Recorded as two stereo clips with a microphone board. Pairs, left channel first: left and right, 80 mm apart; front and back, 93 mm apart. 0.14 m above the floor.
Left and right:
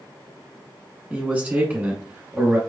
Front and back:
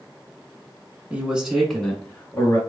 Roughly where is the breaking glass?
I don't hear breaking glass.